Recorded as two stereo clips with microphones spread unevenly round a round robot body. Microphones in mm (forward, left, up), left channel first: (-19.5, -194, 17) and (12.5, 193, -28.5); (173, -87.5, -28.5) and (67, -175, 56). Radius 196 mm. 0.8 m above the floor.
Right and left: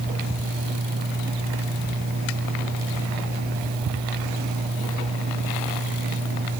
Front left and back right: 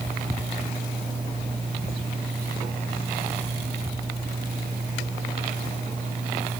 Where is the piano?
No piano in this recording.